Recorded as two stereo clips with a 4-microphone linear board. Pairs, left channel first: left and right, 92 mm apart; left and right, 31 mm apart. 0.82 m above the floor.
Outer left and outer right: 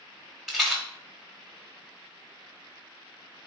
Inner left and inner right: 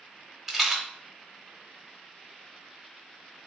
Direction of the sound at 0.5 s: 5° right (ahead or behind).